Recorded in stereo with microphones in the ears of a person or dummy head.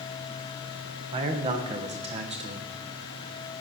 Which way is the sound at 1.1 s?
35° right (ahead or behind).